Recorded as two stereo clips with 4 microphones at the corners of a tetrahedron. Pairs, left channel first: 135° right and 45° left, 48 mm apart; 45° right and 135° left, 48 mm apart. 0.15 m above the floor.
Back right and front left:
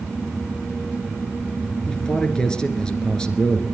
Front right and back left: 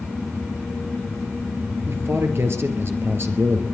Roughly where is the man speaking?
Behind left.